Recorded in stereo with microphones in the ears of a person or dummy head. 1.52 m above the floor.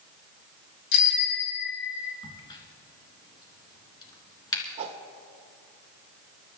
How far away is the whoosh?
About 1.3 m.